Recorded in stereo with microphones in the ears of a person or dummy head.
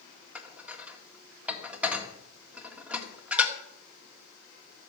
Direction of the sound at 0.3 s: 10° right (ahead or behind).